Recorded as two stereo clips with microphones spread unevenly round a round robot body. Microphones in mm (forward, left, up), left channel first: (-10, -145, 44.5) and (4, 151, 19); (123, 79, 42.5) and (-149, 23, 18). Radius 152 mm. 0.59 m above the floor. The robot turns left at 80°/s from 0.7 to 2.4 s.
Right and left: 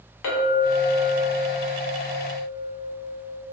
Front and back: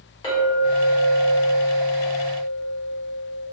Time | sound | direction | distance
0.2 | a clink | 65° right | 1.1 m